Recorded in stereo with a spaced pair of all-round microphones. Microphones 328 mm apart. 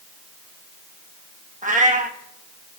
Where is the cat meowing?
25° right (ahead or behind), 1.0 m.